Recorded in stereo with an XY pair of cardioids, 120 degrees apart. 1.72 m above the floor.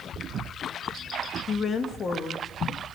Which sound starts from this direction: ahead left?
A woman speaking, at 1.5 s.